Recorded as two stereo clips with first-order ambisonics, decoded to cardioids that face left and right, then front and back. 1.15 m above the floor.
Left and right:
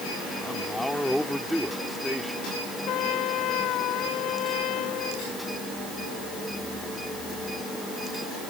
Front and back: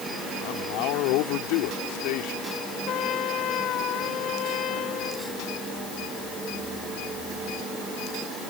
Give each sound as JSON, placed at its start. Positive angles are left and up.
{"t": 0.4, "sound": "a man speaking", "azimuth_deg": 0}
{"t": 2.9, "sound": "a trumpet", "azimuth_deg": 50}